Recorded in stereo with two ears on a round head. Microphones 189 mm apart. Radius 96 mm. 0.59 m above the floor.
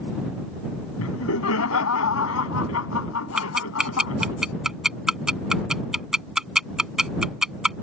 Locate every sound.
1.0 s laughter: 75° left (ahead or behind)
3.4 s ticking: centre (ahead or behind)